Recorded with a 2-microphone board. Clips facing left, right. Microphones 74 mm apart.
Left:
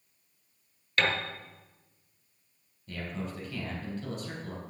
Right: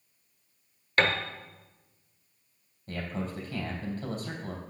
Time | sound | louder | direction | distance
1.0 | a piano | right 3 dB | 40° right (ahead or behind) | 1.1 m
2.9 | a man speaking | right 2 dB | 40° right (ahead or behind) | 3.5 m